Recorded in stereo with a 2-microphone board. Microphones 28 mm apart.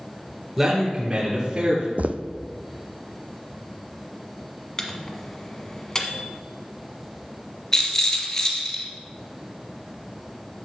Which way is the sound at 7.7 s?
20° left (ahead or behind).